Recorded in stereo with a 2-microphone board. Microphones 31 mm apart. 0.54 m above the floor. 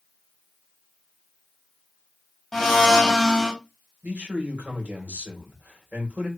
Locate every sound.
2.5 s a blender: 5° left (ahead or behind), 1.3 m
4.0 s a man speaking: 70° right (ahead or behind), 1.9 m